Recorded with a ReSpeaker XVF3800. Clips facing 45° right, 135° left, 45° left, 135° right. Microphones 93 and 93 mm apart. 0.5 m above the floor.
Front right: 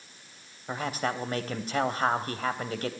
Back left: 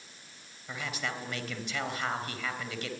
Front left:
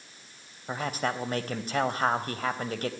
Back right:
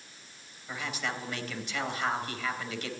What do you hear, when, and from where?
0.7 s a man speaking: straight ahead, 3 m